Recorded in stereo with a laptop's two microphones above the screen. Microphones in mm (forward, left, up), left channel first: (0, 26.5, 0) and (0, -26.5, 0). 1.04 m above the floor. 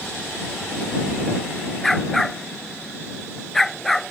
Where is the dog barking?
5° left (ahead or behind).